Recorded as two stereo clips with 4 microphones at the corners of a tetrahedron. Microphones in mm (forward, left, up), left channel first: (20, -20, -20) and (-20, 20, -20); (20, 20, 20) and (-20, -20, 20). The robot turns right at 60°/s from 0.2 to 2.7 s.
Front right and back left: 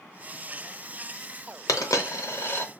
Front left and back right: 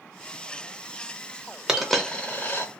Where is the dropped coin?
55° right, 0.7 m; by 2.7 s 5° left, 0.7 m.